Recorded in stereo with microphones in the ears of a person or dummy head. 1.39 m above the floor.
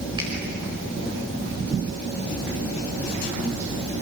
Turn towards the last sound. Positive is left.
turn(degrees=-25)  # may be behind; listen again after turning